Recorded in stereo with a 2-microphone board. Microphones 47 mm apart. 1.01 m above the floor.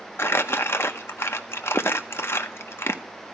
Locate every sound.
0.2 s crumpling: 65° left (ahead or behind), 0.8 m